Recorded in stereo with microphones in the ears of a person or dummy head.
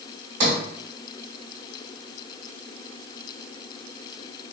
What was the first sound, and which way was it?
A sliding door, 60° right (ahead or behind).